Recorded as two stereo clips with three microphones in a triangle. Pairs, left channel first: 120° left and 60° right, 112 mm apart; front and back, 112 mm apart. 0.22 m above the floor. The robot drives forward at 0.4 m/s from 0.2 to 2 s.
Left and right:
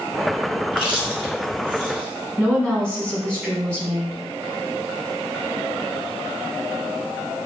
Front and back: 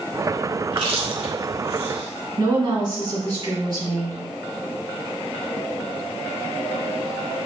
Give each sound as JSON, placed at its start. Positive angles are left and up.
{"t": 0.7, "sound": "chewing", "azimuth_deg": 150, "distance_m": 1.3}
{"t": 2.4, "sound": "a woman speaking", "azimuth_deg": -160, "distance_m": 1.6}